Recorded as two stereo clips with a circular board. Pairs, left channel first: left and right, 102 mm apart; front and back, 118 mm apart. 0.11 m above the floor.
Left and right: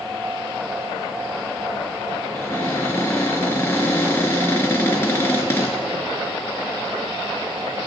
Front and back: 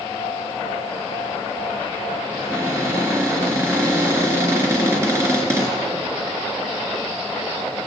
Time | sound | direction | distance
2.3 | a cupboard door | 135° left | 1.8 m